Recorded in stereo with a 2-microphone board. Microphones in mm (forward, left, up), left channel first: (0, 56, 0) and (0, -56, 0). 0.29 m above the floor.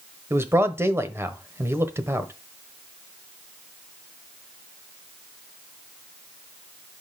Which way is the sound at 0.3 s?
20° right (ahead or behind).